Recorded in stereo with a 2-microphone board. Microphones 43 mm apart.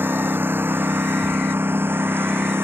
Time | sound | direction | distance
0.0 | a lawn mower | 55° right (ahead or behind) | ?